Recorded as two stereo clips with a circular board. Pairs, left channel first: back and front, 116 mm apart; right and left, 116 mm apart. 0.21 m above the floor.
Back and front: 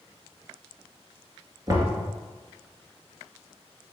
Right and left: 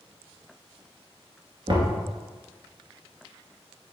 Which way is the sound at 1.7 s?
55° left.